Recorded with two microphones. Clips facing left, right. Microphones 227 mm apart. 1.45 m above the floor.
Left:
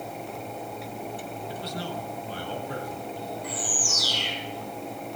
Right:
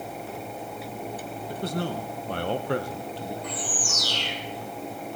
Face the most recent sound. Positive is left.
turn(degrees=10)  # may be behind; listen again after turning